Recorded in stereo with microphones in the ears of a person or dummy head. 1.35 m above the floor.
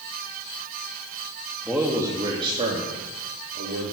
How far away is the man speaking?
About 1.8 m.